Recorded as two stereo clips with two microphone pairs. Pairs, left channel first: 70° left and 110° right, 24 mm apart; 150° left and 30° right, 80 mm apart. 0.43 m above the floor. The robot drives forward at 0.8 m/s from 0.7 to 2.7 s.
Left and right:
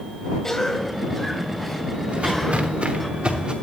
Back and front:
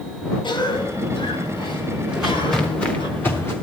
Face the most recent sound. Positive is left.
turn(degrees=-150)